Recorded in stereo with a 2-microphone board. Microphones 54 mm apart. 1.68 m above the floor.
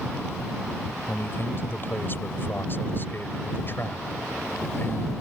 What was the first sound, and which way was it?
A man speaking, 40° left (ahead or behind).